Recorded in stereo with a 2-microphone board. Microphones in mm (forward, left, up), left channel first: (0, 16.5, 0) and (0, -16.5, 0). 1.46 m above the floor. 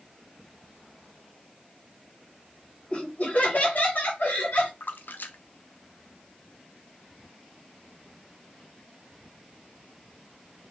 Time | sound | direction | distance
2.9 | laughter | 35° left (ahead or behind) | 1.9 m
4.8 | a splash | 75° left (ahead or behind) | 0.5 m